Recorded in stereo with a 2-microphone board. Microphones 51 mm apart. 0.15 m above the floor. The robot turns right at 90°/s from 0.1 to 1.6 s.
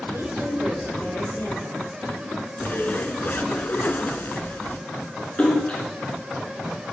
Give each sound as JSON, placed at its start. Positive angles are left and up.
{"t": 0.1, "sound": "a woman speaking", "azimuth_deg": -60, "distance_m": 4.5}
{"t": 2.6, "sound": "a zipper", "side_deg": 45, "distance_m": 0.5}
{"t": 5.4, "sound": "a splash", "side_deg": 30, "distance_m": 2.0}